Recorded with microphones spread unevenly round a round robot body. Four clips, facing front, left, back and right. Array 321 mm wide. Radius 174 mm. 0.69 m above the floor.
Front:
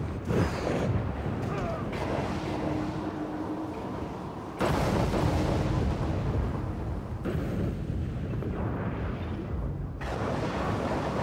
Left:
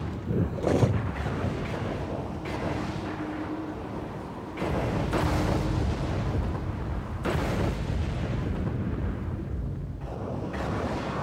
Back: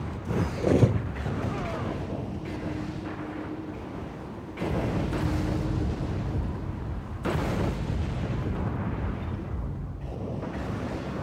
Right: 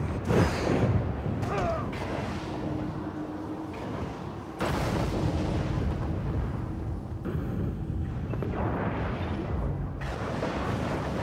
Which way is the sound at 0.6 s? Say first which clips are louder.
Left 2 dB, back 6 dB; straight behind.